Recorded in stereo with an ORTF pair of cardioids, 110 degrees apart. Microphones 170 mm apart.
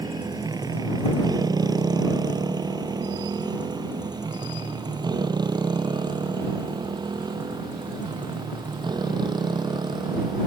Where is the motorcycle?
20° right; by 10.5 s 25° right.